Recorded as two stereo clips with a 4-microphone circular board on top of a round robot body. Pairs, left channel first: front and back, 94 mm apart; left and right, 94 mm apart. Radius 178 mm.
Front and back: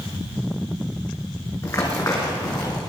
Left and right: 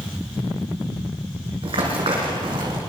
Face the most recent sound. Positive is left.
turn(degrees=-50)